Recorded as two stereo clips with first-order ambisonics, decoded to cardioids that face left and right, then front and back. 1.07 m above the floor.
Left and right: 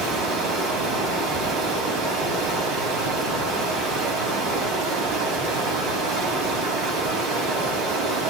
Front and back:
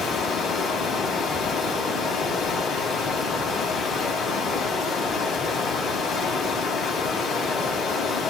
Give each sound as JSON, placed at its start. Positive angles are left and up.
{"t": 0.0, "sound": "running water", "azimuth_deg": -65, "distance_m": 3.5}